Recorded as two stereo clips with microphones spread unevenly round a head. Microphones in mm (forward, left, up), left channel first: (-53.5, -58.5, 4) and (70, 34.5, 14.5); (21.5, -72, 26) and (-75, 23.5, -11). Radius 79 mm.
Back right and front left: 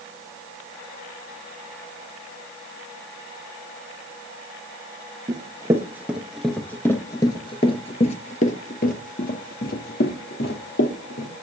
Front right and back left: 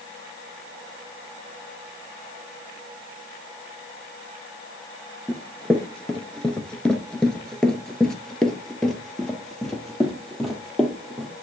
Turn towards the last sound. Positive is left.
turn(degrees=-125)